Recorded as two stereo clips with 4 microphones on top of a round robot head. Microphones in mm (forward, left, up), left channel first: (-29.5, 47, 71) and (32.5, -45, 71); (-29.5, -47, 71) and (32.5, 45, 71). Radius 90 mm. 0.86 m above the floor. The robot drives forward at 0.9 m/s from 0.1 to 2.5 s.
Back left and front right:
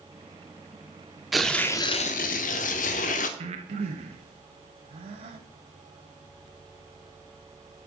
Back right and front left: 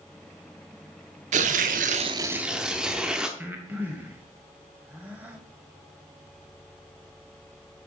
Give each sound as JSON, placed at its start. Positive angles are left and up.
{"t": 1.3, "sound": "tearing paper", "azimuth_deg": 30, "distance_m": 0.8}
{"t": 3.4, "sound": "breathing", "azimuth_deg": -20, "distance_m": 1.0}